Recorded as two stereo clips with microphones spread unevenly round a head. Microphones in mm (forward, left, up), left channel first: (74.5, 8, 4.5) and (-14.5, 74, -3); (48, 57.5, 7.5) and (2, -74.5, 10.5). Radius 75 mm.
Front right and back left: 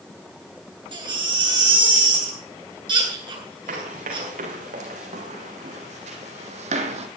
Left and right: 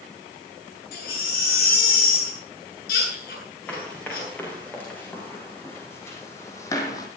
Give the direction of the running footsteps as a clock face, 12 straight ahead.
7 o'clock.